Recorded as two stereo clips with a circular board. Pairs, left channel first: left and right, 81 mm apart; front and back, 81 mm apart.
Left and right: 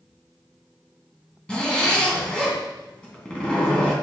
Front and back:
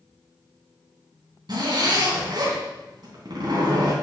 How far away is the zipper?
About 3 m.